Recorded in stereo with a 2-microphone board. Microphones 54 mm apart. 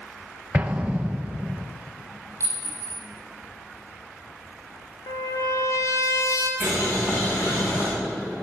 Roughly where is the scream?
No scream in this recording.